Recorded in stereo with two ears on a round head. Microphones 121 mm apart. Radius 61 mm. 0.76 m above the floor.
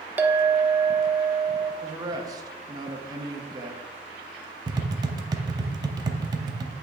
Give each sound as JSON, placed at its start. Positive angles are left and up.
{"t": 0.2, "sound": "a clink", "side_deg": -10, "distance_m": 0.6}
{"t": 1.8, "sound": "a man speaking", "side_deg": -25, "distance_m": 1.0}
{"t": 4.7, "sound": "tapping", "side_deg": -25, "distance_m": 0.6}